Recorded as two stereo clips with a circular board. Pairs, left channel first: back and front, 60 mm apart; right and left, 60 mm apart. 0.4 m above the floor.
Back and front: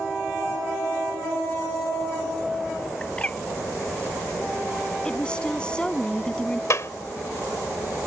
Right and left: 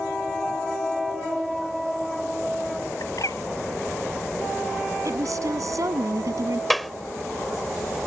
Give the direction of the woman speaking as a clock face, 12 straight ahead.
8 o'clock.